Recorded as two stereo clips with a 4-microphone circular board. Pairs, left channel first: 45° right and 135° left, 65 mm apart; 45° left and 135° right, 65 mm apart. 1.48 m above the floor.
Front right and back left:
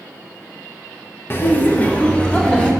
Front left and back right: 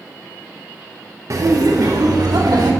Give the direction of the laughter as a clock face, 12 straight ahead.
3 o'clock.